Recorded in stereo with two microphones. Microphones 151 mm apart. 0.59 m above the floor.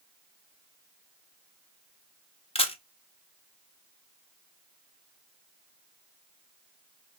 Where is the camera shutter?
40° left (ahead or behind), 0.6 m.